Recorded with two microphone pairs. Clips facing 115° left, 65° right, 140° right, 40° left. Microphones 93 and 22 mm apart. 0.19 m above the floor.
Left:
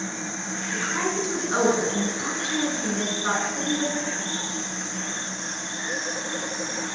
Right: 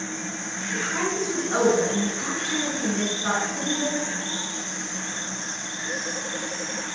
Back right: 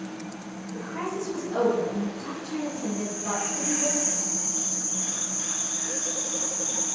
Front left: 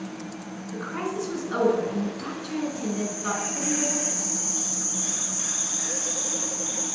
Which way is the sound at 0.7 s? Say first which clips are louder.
Even, front left 2 dB; 35° left.